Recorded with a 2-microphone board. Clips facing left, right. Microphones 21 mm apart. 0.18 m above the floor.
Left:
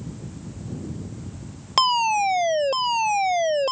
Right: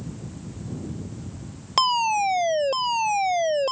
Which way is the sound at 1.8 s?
5° left (ahead or behind).